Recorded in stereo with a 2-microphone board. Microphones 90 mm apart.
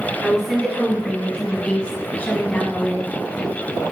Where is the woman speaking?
5° right (ahead or behind), 1.4 m; by 3.1 s 20° left (ahead or behind), 1.3 m.